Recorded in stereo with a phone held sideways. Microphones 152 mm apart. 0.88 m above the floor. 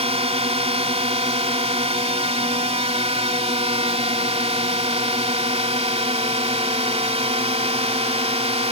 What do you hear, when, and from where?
0.0 s a drone: 40° right (ahead or behind)